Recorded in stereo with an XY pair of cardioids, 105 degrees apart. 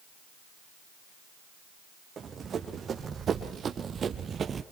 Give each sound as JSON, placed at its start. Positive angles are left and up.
{"t": 2.2, "sound": "running footsteps", "azimuth_deg": -45, "distance_m": 3.5}